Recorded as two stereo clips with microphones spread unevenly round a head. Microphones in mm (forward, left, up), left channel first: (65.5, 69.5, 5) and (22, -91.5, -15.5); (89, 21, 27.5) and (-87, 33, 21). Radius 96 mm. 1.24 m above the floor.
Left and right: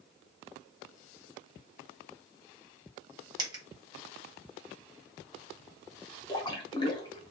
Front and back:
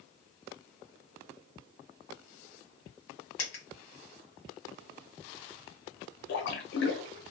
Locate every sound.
3.4 s a dropped coin: 40° right, 1.0 m
6.3 s a splash: 10° left, 0.7 m